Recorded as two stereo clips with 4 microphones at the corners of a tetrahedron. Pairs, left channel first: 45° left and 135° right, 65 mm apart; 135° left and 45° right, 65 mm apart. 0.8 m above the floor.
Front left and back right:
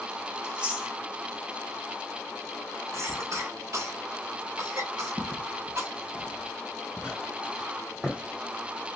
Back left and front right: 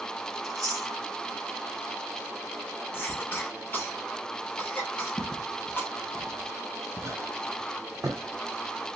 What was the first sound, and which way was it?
Chewing, 60° right.